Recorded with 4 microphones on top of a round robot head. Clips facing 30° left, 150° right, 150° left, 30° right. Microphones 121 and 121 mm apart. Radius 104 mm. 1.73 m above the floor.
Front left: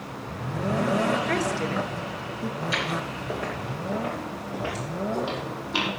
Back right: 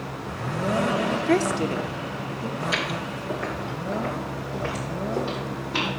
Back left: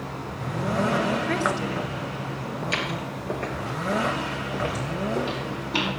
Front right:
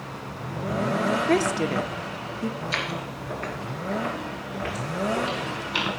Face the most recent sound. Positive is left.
turn(degrees=105)